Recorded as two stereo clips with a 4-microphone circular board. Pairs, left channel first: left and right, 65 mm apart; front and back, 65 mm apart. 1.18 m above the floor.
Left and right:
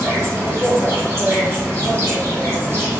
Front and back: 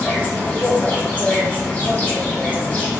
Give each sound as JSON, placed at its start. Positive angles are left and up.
{"t": 0.0, "sound": "an insect", "azimuth_deg": -60, "distance_m": 1.7}